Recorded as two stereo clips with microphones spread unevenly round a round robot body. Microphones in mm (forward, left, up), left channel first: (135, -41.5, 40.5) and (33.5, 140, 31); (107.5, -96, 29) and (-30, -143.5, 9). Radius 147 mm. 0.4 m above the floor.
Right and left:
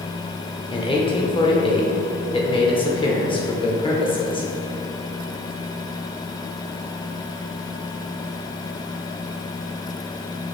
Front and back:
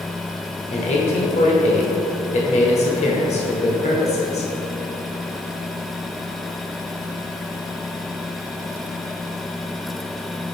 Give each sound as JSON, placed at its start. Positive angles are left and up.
{"t": 0.7, "sound": "a man speaking", "azimuth_deg": -5, "distance_m": 1.2}